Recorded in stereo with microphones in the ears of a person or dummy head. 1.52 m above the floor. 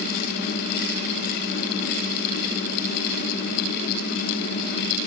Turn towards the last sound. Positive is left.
No sound to turn to.